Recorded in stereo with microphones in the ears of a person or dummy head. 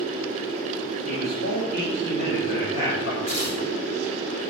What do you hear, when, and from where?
1.1 s a man speaking: 50° left (ahead or behind), 6 m; by 3.2 s 60° left (ahead or behind), 6.5 m
3.3 s tearing paper: 50° left (ahead or behind), 4 m